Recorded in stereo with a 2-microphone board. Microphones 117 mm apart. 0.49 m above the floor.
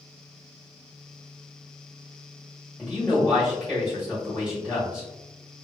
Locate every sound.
2.8 s a man speaking: centre (ahead or behind), 1.1 m